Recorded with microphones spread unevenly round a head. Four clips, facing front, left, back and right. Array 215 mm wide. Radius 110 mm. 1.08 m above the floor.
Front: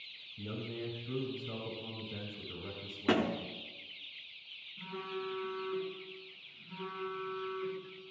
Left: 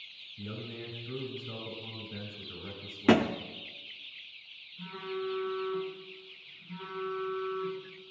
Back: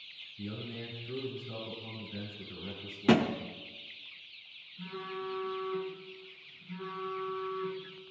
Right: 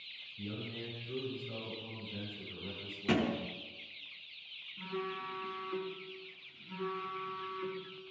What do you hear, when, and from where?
0.4 s a man speaking: 25° left, 6 m
3.1 s a thud: 105° left, 1.0 m
4.8 s a phone buzzing: 70° right, 6.5 m